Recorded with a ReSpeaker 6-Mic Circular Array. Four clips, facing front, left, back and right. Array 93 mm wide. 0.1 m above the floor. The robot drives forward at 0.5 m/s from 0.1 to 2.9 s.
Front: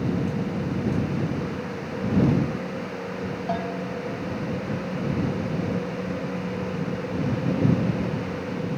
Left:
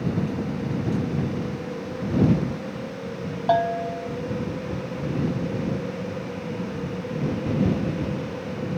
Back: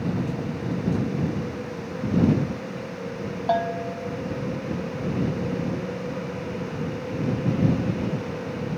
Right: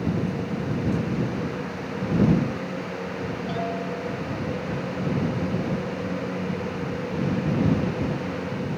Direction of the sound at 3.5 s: 110° left.